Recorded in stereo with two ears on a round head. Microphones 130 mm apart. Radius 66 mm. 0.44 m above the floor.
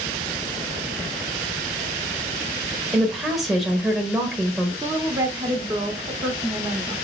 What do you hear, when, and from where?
2.9 s a woman speaking: centre (ahead or behind), 1.4 m
4.8 s a woman speaking: 20° right (ahead or behind), 1.0 m